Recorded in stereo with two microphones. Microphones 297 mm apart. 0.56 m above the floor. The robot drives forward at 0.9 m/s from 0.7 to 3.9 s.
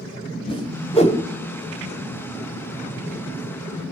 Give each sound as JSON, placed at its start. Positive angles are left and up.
{"t": 0.5, "sound": "a whoosh", "side_deg": 20, "distance_m": 2.5}